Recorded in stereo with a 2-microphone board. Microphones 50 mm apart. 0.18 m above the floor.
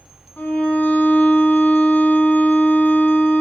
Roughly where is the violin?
Left.